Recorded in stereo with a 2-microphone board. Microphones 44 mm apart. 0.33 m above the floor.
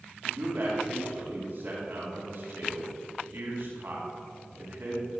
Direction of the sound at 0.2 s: 65° right (ahead or behind).